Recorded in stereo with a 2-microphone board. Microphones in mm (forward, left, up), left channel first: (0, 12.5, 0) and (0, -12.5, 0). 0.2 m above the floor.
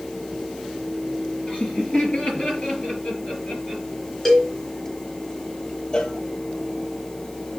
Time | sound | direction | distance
1.5 | laughter | 35° left (ahead or behind) | 4.5 m
4.2 | a cowbell | 5° left (ahead or behind) | 3 m
5.9 | a cowbell | 30° left (ahead or behind) | 1.3 m